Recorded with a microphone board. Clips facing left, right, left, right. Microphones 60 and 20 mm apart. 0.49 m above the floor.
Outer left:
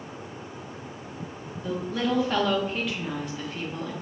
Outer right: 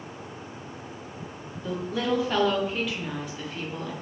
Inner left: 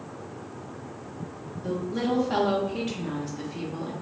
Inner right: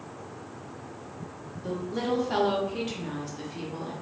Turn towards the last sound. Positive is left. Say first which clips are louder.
# even, inner left 2 dB
turn(degrees=0)  # may be behind; listen again after turning